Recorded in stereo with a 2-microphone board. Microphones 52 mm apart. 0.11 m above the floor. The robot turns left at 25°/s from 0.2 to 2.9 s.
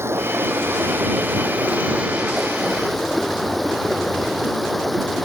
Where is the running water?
115° right; by 5.2 s straight behind.